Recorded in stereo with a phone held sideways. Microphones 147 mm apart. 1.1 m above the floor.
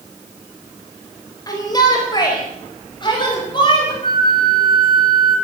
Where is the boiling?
No boiling in this recording.